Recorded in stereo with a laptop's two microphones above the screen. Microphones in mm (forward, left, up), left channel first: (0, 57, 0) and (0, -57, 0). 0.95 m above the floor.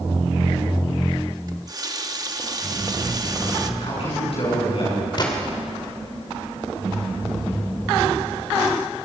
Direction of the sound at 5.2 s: 40° left (ahead or behind).